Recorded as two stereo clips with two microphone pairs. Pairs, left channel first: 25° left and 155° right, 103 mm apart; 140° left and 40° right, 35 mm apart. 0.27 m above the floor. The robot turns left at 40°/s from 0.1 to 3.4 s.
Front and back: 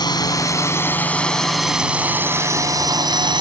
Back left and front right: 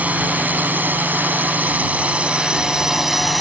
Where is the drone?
10° right; by 3.4 s 130° right.